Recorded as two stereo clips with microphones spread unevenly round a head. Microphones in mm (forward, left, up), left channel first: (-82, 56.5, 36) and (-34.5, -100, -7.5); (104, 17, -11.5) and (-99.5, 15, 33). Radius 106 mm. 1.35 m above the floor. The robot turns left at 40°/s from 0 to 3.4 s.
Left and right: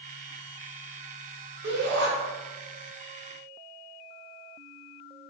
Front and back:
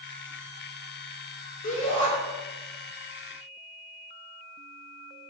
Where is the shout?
55° right, 3 m; by 2.1 s 75° right, 3 m.